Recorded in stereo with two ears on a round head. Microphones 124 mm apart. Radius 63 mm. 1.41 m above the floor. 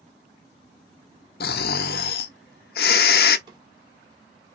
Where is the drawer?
30° right (ahead or behind), 1.3 m.